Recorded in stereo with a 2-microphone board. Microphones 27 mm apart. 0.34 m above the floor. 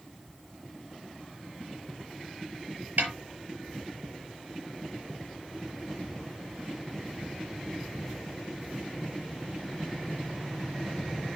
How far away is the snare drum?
About 5.5 m.